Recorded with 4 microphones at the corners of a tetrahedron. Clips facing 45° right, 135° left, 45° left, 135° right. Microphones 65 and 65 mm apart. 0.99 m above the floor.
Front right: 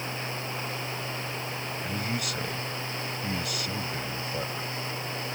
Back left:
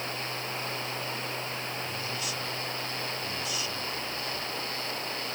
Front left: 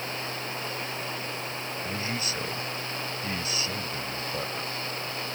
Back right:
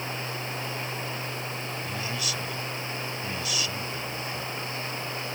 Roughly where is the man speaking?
Ahead.